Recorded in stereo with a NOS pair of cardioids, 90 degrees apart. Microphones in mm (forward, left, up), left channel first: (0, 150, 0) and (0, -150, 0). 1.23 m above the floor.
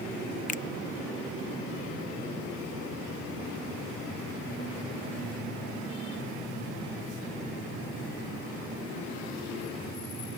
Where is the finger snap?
25° left.